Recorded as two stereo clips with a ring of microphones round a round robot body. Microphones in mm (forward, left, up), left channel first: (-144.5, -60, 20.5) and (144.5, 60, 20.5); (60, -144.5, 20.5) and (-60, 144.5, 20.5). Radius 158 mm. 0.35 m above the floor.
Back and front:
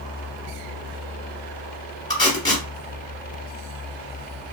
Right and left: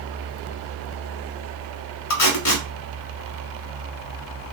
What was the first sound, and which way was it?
Tape being pulled, 80° right.